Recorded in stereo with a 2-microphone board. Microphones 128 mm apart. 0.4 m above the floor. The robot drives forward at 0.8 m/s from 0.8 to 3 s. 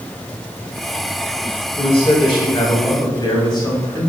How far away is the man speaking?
About 2.5 m.